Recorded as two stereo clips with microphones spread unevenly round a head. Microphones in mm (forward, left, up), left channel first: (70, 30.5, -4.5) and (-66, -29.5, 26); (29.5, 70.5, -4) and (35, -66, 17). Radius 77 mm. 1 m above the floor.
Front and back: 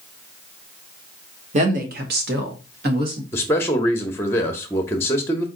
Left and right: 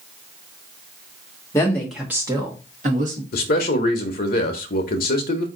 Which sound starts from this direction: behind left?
A woman speaking, at 1.5 s.